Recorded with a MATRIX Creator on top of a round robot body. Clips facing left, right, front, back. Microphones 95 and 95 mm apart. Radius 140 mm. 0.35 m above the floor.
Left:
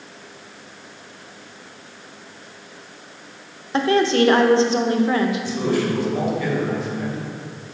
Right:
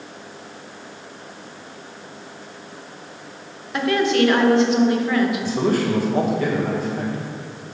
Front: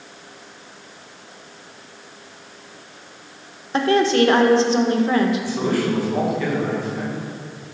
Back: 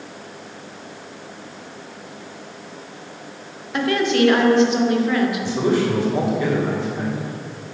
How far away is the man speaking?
About 2.5 m.